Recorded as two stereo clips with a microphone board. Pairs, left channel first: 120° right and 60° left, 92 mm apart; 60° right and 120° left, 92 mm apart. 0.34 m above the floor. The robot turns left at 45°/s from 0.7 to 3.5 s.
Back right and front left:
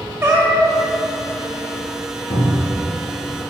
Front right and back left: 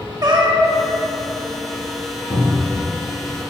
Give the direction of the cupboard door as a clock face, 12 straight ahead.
4 o'clock.